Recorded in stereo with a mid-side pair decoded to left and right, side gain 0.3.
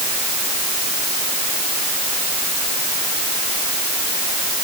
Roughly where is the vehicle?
I don't hear a vehicle.